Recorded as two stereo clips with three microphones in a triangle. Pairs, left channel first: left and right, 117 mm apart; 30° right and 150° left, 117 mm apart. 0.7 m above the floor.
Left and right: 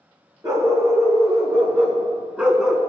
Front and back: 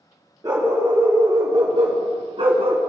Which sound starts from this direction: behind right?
A dog barking, at 0.4 s.